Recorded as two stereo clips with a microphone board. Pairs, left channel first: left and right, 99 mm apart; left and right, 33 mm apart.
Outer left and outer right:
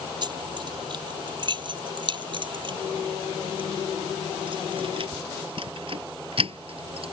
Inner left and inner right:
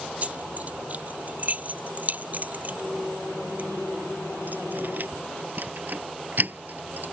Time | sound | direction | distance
0.2 | keys jangling | 50° right (ahead or behind) | ?